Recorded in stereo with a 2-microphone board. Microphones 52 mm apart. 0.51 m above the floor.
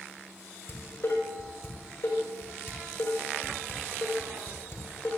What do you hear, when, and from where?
0.7 s dishes clattering: 55° left (ahead or behind), 5 m